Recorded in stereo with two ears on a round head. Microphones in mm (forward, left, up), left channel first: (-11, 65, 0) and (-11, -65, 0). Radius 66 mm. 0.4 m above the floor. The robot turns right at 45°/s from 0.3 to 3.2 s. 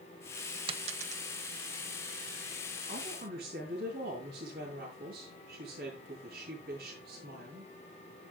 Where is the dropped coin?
40° right (ahead or behind), 0.9 m; by 1.2 s 60° right (ahead or behind), 0.9 m.